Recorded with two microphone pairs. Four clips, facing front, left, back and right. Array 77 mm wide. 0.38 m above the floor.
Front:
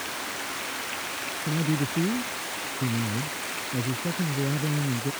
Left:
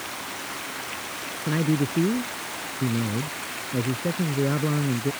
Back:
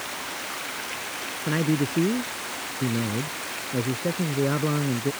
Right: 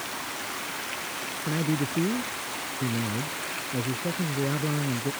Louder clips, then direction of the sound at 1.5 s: Left 4 dB, back 4 dB; 165° left.